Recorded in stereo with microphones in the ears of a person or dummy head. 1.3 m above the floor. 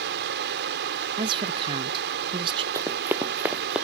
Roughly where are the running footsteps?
Centre.